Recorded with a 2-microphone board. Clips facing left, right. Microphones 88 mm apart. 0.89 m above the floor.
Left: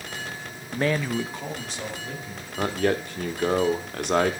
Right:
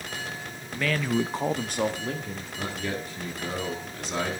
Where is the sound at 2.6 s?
60° left (ahead or behind), 1.9 m.